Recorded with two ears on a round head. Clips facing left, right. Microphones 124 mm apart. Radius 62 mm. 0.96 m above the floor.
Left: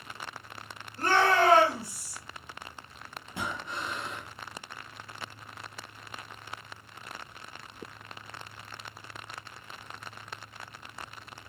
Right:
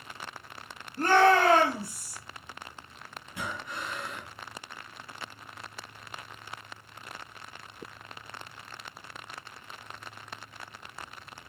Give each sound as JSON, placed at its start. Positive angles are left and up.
{"t": 1.0, "sound": "a shout", "side_deg": -40, "distance_m": 1.5}
{"t": 3.3, "sound": "breathing", "side_deg": 25, "distance_m": 0.9}